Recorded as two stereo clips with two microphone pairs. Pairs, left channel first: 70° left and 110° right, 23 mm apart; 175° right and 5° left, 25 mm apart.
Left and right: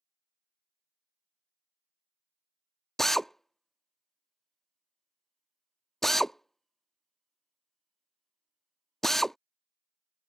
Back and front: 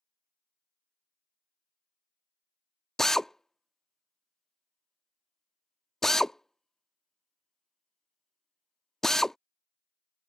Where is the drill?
130° left.